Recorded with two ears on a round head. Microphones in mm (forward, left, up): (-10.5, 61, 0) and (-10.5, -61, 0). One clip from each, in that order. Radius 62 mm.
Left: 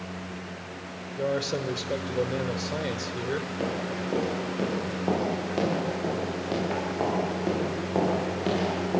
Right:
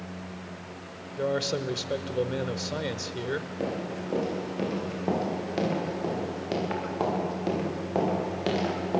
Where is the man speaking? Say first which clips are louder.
Even; 15° right (ahead or behind), 1.0 m.